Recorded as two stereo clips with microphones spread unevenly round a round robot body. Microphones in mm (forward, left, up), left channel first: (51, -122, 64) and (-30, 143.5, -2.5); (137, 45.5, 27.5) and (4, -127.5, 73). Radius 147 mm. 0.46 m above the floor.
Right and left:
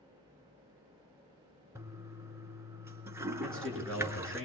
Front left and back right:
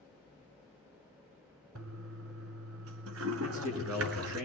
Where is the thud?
I don't hear a thud.